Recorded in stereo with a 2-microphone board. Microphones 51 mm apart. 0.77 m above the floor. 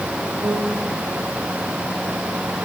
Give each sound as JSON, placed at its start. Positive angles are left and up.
{"t": 0.4, "sound": "a piano", "side_deg": -60, "distance_m": 7.5}